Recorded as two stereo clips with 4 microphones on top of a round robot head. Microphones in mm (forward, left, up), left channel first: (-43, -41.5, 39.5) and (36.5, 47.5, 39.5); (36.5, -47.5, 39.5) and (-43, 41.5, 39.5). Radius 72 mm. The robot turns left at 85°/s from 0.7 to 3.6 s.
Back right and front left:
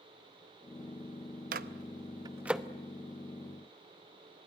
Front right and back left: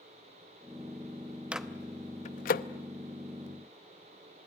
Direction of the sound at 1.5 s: 50° left.